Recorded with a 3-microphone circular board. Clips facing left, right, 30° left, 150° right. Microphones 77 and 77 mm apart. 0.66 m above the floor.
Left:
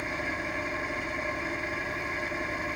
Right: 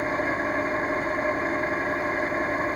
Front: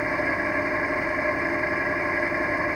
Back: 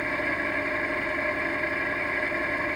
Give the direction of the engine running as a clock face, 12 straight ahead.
1 o'clock.